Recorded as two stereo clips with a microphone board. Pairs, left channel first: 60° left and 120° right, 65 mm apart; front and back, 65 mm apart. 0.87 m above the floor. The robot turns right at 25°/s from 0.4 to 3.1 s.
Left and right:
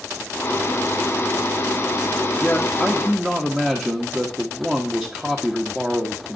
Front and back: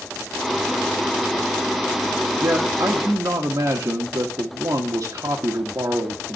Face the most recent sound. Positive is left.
turn(degrees=170)